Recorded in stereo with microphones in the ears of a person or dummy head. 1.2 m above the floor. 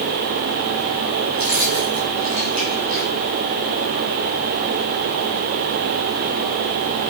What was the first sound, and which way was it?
Keys jangling, 45° right (ahead or behind).